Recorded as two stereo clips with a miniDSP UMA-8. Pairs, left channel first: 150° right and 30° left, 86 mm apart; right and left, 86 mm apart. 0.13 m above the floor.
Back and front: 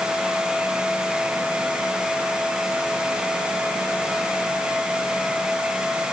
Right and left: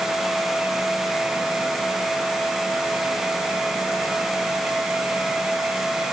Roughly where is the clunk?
No clunk in this recording.